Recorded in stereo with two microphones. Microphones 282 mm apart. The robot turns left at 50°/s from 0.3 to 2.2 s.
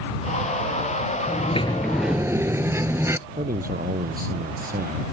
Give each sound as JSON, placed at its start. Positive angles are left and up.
{"t": 1.3, "sound": "a sliding door", "azimuth_deg": 35}
{"t": 3.3, "sound": "a man speaking", "side_deg": -30}